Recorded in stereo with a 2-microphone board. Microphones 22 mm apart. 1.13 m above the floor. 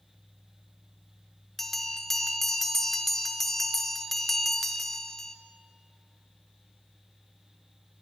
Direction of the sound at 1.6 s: 15° left (ahead or behind).